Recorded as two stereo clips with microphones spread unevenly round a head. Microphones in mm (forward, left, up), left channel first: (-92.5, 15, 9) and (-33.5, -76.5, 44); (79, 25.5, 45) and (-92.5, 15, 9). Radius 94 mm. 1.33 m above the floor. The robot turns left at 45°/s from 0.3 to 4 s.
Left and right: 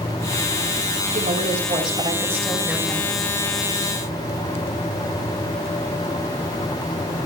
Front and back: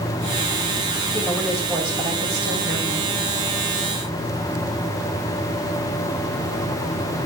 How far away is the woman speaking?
About 5.5 m.